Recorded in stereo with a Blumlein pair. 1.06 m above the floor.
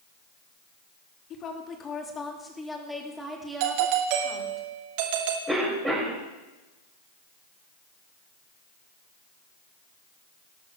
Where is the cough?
5° right, 6.5 m.